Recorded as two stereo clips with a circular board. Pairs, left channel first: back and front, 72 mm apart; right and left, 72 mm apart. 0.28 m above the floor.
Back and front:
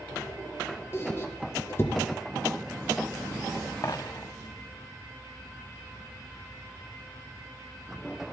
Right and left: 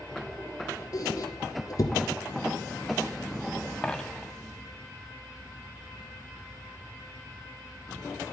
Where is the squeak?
125° right, 1.2 m.